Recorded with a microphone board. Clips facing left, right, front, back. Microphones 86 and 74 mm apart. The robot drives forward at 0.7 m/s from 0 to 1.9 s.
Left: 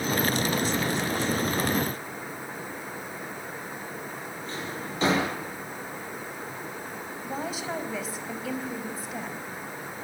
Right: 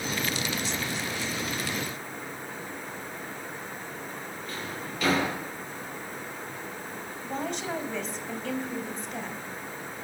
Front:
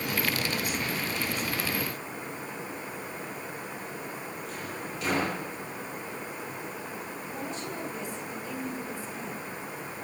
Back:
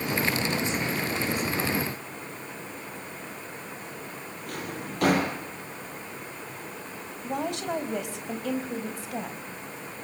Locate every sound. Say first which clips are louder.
4.5 s a drawer: left 2 dB, back 1 dB; 150° left, 7.5 m
7.2 s a woman speaking: right 1 dB, back 9 dB; 175° left, 4 m